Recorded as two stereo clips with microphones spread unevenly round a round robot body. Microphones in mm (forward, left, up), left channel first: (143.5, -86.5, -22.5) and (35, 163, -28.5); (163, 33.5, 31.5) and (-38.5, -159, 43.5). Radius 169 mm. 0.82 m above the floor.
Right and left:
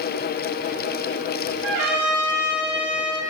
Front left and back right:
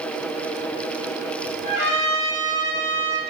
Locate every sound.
1.6 s a trumpet: 100° left, 0.7 m